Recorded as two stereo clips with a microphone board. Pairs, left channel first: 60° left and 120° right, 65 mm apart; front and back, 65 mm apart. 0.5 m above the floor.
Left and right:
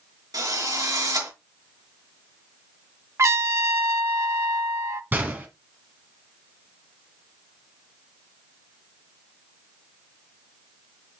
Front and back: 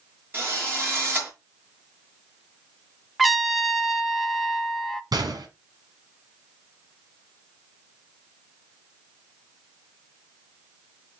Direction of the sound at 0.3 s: 125° right.